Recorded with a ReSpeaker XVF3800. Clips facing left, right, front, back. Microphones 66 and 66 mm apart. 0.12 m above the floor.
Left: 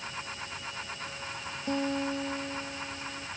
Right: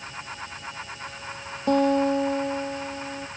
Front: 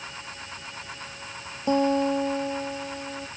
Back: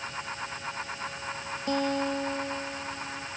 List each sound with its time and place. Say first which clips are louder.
1.7 s a guitar: right 11 dB, front 6 dB; 65° right